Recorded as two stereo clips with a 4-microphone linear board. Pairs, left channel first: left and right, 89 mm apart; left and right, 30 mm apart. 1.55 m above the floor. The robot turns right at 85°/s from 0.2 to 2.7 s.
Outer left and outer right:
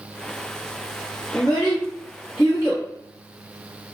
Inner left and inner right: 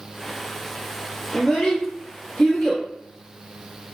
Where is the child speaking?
35° left (ahead or behind), 1.3 m; by 2.8 s 15° left (ahead or behind), 1.3 m.